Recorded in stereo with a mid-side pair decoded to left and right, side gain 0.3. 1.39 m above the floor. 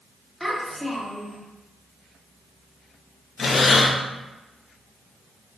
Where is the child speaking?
Straight ahead, 1.8 m.